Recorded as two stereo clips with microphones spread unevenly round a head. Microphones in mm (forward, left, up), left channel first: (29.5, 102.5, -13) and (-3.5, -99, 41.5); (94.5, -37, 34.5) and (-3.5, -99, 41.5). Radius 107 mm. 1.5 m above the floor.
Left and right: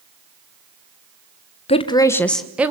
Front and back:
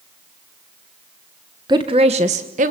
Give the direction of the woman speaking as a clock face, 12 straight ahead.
7 o'clock.